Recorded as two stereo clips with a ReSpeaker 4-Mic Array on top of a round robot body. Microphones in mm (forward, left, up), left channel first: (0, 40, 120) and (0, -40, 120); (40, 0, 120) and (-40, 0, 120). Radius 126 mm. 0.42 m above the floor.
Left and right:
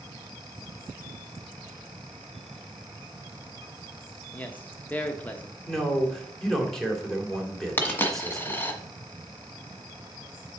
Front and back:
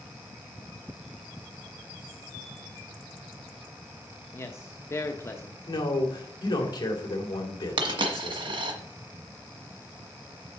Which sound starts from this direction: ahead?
A man speaking, at 5.7 s.